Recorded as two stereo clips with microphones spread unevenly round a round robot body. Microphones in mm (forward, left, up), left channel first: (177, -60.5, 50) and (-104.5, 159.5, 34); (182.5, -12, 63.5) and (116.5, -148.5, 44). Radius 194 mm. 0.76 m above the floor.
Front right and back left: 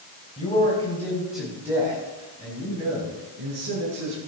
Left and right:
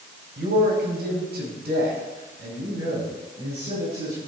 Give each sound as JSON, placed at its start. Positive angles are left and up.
{"t": 0.4, "sound": "a man speaking", "azimuth_deg": -110, "distance_m": 4.0}